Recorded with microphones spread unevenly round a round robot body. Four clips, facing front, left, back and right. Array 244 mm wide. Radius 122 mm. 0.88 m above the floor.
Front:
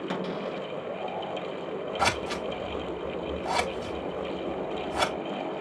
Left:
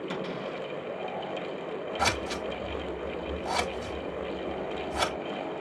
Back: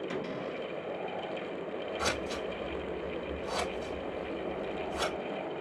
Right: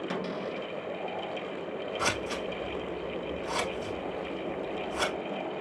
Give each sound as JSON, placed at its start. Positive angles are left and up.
{"t": 0.1, "sound": "a cupboard door", "azimuth_deg": -25, "distance_m": 1.5}
{"t": 2.0, "sound": "scissors", "azimuth_deg": 15, "distance_m": 2.5}